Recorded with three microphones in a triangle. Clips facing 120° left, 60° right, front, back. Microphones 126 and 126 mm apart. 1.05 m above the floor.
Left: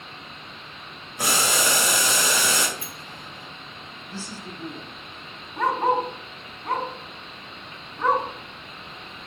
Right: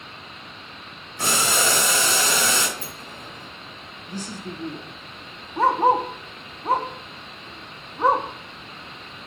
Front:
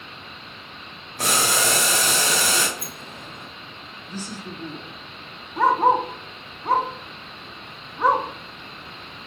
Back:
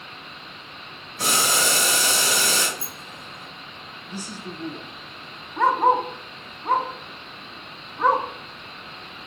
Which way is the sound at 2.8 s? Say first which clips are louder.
Right 2 dB, front 1 dB; 15° right.